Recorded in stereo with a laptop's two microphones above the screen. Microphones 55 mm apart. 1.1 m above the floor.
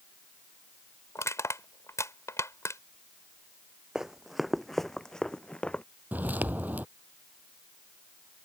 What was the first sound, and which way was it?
Crushing, 60° left (ahead or behind).